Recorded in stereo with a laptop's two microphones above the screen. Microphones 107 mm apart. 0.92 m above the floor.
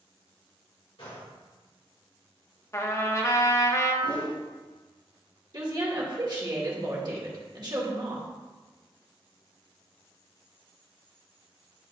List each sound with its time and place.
1.0 s a gunshot: 70° left (ahead or behind), 2.5 m
2.7 s a trumpet: 30° left (ahead or behind), 0.6 m
4.0 s a whoosh: 10° left (ahead or behind), 1.3 m
5.5 s a woman speaking: 45° right (ahead or behind), 2 m